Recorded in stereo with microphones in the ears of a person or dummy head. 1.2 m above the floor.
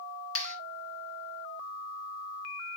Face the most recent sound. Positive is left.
turn(degrees=85)